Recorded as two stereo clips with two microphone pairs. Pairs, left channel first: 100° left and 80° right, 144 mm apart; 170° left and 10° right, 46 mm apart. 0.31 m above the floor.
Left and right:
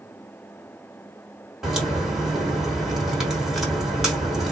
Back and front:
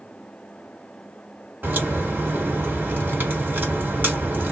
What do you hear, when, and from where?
1.6 s a crack: 5° left, 2 m